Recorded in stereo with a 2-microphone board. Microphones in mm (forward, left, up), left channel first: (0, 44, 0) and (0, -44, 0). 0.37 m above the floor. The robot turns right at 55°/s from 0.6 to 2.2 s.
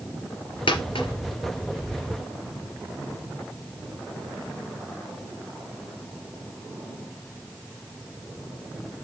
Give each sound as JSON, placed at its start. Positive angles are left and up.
{"t": 0.7, "sound": "a dropped coin", "side_deg": 80, "distance_m": 3.5}